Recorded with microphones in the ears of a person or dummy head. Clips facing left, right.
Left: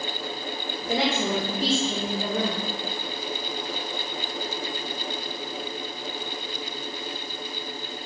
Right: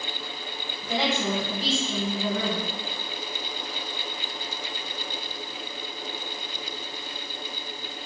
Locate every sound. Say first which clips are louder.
0.8 s a woman speaking: left 1 dB; 45° left (ahead or behind), 1.7 m